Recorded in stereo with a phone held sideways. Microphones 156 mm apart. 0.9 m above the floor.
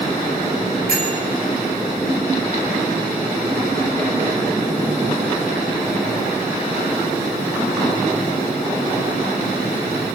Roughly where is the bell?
Right.